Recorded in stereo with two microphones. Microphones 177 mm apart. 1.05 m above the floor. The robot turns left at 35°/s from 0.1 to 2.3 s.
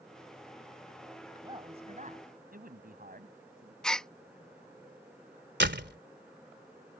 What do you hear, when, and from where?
1.4 s a man speaking: 25° right; by 3.7 s 55° right
3.8 s a gasp: 5° left (ahead or behind)
5.6 s a door slam: 85° right